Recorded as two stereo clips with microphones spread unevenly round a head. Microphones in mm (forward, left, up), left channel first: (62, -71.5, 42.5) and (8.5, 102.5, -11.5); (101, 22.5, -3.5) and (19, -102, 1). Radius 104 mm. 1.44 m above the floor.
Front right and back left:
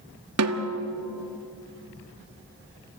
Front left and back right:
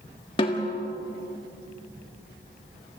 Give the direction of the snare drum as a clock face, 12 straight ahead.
8 o'clock.